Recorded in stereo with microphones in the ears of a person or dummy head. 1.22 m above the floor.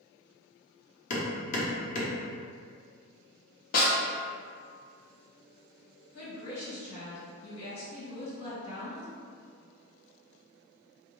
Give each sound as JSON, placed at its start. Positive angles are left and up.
{"t": 1.1, "sound": "hammering", "side_deg": 45, "distance_m": 0.8}
{"t": 3.7, "sound": "a snare drum", "side_deg": 45, "distance_m": 0.7}
{"t": 6.1, "sound": "a woman speaking", "side_deg": 75, "distance_m": 1.4}